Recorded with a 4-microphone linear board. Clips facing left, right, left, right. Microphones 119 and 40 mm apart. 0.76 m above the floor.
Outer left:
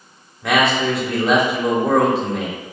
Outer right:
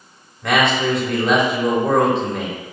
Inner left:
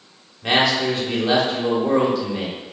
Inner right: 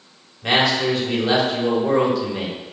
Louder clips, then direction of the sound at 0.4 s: Even, even; centre (ahead or behind).